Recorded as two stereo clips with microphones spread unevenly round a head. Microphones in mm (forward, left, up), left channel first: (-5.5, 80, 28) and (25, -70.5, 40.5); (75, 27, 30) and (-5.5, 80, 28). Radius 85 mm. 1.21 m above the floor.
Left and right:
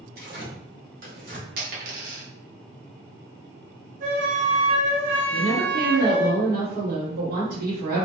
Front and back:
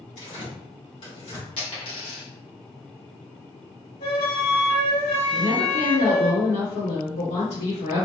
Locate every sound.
0.2 s tearing paper: 55° right, 1.5 m
1.6 s a dropped coin: 75° right, 0.9 m
4.0 s a flute: 50° right, 1.7 m
5.3 s a woman speaking: 40° right, 1.2 m